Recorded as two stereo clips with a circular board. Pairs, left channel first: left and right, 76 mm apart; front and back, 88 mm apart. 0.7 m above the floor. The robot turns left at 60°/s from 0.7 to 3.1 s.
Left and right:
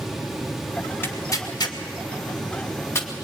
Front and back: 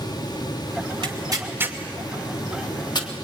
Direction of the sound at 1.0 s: 150° left.